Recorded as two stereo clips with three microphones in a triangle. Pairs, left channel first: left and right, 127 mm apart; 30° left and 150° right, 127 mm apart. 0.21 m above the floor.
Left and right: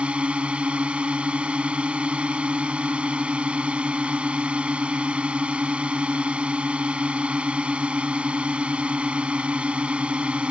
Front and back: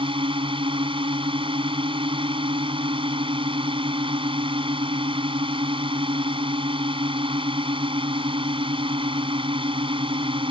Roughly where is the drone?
Behind.